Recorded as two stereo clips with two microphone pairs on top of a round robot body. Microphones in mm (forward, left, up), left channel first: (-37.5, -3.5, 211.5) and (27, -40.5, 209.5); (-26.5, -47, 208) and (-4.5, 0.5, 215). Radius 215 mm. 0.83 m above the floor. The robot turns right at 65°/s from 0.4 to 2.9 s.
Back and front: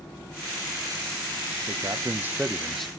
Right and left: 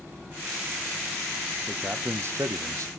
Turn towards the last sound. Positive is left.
turn(degrees=70)